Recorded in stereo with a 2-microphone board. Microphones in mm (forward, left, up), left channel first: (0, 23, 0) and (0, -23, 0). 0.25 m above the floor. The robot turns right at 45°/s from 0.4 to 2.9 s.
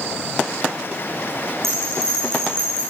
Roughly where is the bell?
Right.